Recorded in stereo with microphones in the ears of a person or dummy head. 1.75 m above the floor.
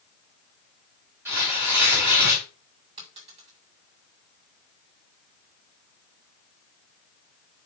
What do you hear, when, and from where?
1.2 s tearing paper: 10° right (ahead or behind), 4 m
3.0 s a dropped coin: 30° right (ahead or behind), 1.8 m